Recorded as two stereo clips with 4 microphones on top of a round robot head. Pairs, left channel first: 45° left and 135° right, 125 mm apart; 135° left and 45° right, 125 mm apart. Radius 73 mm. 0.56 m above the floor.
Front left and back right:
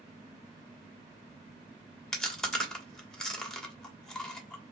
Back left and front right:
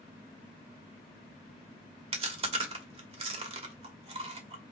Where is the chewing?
35° right, 1.2 m.